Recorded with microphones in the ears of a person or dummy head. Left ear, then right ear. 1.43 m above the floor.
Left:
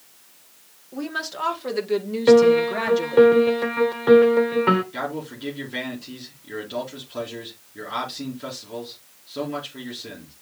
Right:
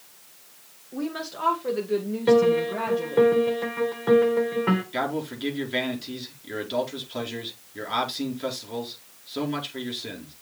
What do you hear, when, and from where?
0.9 s a woman speaking: 15° left (ahead or behind), 2 m; by 3.3 s 60° left (ahead or behind), 1.7 m
2.3 s a piano: 25° left (ahead or behind), 1.3 m
4.9 s a man speaking: 20° right (ahead or behind), 4.5 m